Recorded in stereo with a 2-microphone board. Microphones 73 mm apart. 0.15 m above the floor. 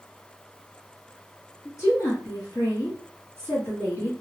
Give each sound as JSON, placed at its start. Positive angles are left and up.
{"t": 1.6, "sound": "a woman speaking", "side_deg": 35, "distance_m": 1.9}